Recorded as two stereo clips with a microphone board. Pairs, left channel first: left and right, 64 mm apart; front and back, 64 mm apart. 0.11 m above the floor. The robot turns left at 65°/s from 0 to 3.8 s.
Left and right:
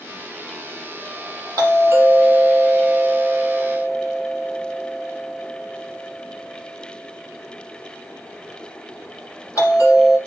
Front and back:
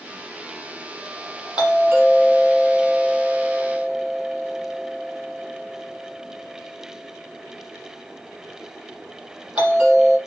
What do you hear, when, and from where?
1.6 s a doorbell: 105° right, 5.5 m; by 10.2 s 110° left, 5.5 m